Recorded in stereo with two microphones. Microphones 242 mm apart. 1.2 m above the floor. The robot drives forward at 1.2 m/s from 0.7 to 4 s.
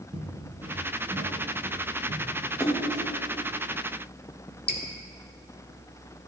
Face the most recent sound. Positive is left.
turn(degrees=40)  # may be behind; listen again after turning